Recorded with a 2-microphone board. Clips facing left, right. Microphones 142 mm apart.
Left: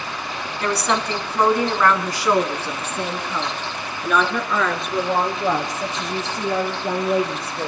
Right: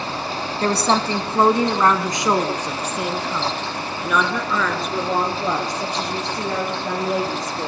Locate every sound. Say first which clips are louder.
0.6 s a woman speaking: right 3 dB; 30° right (ahead or behind), 1.8 m; by 7.7 s 5° left (ahead or behind), 5 m